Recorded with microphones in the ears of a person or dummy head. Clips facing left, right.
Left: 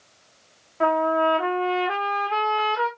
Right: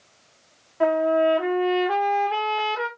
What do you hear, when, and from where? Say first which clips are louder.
0.8 s a trumpet: right 2 dB; 5° right (ahead or behind), 1.0 m